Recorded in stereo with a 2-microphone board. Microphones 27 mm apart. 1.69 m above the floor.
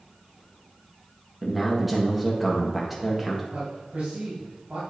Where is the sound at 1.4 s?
Centre (ahead or behind), 1.6 m.